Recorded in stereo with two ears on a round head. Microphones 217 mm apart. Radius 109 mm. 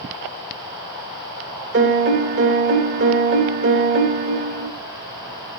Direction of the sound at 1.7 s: 50° right (ahead or behind).